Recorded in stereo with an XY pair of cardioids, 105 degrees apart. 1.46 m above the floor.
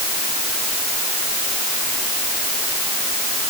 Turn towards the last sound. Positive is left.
No sound to turn to.